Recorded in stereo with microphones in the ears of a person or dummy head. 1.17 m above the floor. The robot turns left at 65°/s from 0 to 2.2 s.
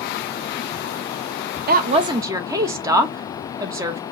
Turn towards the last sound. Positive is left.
turn(degrees=-165)